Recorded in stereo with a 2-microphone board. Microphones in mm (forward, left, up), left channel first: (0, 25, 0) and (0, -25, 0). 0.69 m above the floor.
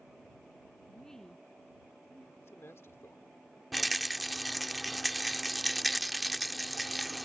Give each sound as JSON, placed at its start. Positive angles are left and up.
{"t": 0.9, "sound": "a woman speaking", "side_deg": 10}
{"t": 2.4, "sound": "a man speaking", "side_deg": 60}
{"t": 3.7, "sound": "a rattle", "side_deg": 0}